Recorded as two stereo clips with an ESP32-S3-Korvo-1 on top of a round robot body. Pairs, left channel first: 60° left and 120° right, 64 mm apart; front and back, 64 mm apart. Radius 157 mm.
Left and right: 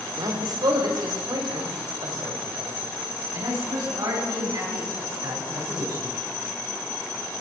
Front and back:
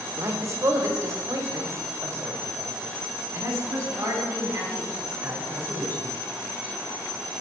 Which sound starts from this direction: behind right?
A man speaking, at 0.2 s.